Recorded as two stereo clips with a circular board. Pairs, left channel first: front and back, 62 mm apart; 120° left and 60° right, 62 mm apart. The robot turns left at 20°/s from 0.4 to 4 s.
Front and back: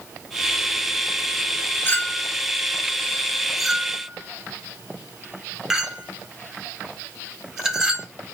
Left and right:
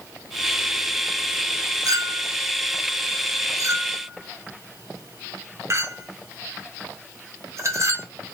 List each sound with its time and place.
1.9 s a clink: 55° right, 0.7 m; by 8.1 s 95° right, 0.7 m